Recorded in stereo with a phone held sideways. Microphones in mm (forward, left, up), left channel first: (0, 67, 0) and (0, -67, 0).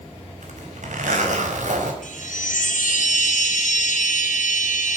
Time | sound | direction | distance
0.4 | a zipper | 65° right (ahead or behind) | 4 m
2.0 | a chime | 70° left (ahead or behind) | 5.5 m